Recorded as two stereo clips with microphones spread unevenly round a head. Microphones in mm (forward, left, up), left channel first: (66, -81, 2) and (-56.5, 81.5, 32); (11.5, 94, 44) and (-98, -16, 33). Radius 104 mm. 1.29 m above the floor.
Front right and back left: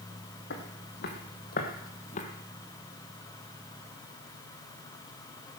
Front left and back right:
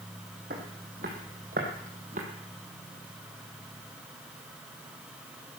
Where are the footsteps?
90° right, 2 m; by 2.2 s 105° right, 1.6 m.